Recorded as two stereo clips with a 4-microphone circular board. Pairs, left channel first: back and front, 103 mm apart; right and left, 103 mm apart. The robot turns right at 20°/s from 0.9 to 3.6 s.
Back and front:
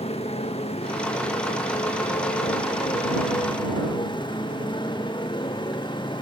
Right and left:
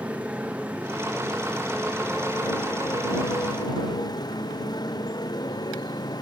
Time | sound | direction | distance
0.0 | a motorcycle | 170° left | ?